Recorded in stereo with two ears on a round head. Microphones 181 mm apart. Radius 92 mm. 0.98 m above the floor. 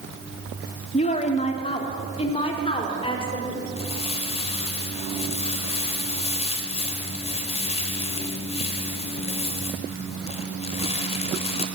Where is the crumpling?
30° left (ahead or behind), 3 m.